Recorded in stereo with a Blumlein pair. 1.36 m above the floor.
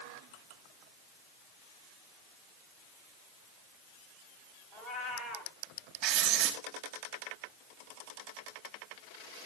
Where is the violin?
No violin in this recording.